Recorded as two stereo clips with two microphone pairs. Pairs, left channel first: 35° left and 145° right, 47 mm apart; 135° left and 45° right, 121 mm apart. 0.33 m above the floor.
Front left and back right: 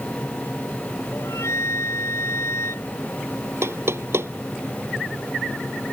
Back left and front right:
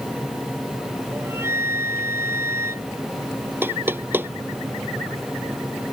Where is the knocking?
120° right.